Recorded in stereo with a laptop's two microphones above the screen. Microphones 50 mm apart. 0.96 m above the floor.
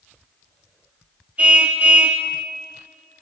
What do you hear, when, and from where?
1.4 s a car horn: 20° right (ahead or behind), 3 m